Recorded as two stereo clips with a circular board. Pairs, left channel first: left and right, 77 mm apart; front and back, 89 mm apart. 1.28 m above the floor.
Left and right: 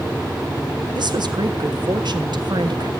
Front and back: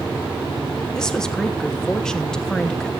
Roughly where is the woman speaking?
Right.